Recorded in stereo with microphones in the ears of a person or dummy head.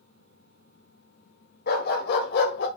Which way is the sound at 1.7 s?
60° left (ahead or behind).